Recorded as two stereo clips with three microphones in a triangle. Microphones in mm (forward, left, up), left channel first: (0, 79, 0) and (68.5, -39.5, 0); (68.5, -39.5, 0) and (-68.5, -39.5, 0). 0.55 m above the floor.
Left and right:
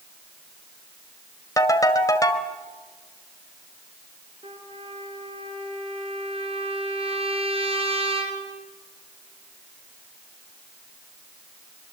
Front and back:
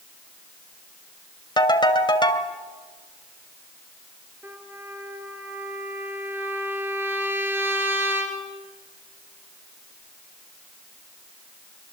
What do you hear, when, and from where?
1.6 s a ringtone: 55° left, 1.7 m
4.4 s a trumpet: 105° right, 3 m